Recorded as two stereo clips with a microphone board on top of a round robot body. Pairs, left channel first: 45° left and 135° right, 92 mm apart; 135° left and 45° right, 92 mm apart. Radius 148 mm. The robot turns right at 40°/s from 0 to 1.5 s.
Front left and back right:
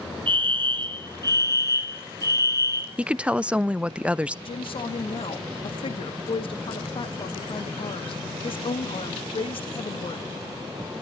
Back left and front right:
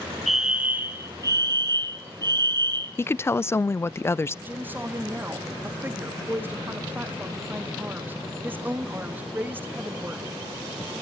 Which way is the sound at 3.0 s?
160° left.